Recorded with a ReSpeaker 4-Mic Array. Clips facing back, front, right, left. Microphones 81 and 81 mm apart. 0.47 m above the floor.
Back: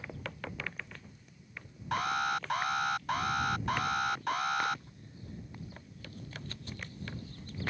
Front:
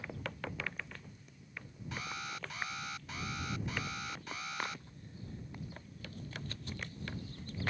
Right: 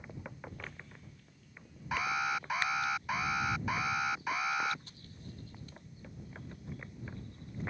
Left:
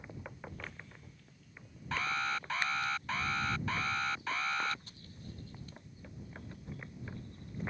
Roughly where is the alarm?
Behind.